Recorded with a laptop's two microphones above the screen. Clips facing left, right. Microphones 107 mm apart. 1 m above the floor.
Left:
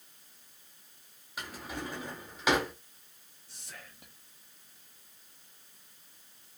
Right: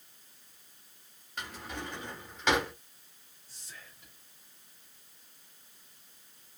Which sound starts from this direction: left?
Whispering, at 3.5 s.